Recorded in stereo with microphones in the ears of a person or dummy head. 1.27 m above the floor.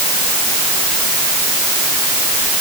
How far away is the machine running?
I don't hear a machine running.